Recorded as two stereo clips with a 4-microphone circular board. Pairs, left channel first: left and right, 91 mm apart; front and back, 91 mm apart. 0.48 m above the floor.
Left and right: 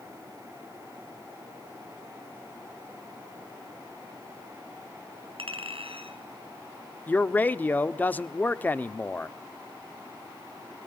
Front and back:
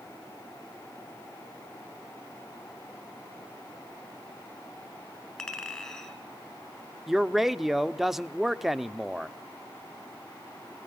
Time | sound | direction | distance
5.4 | a clink | 80° right | 3.5 m
7.1 | a man speaking | 95° left | 0.8 m